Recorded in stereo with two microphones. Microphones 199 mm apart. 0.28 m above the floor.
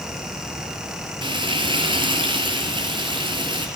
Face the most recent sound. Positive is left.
turn(degrees=-25)  # may be behind; listen again after turning